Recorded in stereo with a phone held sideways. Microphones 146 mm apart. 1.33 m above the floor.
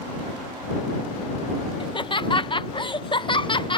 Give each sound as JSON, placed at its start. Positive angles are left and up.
{"t": 1.8, "sound": "laughter", "side_deg": 35}